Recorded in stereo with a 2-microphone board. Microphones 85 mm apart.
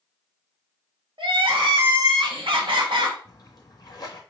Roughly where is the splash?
Left.